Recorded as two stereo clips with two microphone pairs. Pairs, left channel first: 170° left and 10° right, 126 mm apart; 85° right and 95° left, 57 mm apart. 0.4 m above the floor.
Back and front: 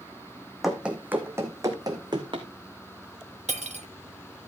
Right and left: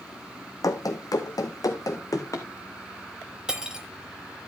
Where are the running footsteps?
95° right, 1.5 m; by 2.5 s 60° right, 2 m.